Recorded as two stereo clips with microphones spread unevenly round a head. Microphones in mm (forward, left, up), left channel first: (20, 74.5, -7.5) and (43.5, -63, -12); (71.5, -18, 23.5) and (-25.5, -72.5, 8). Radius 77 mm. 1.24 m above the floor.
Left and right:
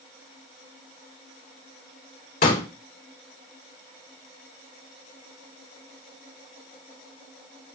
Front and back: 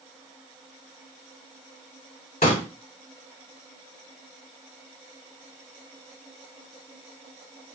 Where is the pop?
80° left, 3 m.